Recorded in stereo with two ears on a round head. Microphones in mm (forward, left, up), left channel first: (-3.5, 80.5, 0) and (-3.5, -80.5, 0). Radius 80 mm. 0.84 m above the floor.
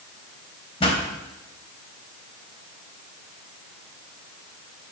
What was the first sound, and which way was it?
A pop, 30° left (ahead or behind).